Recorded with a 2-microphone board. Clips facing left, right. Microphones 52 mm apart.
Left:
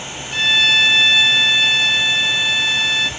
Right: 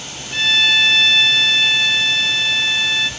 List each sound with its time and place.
0.3 s a violin: 5° left (ahead or behind), 0.9 m